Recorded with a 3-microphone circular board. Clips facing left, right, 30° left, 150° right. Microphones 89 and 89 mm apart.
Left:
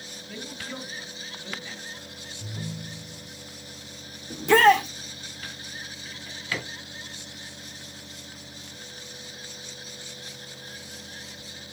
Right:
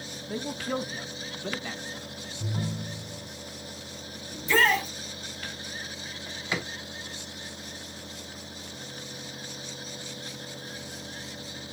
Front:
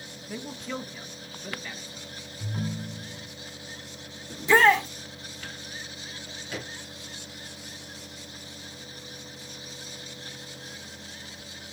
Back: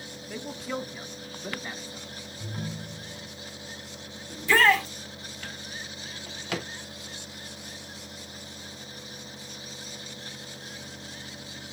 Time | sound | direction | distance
0.3 | a man speaking | 50° right | 0.9 m
2.4 | a ringtone | 55° right | 1.8 m
4.3 | a shout | 100° left | 1.7 m
6.0 | a drawer | 160° right | 1.5 m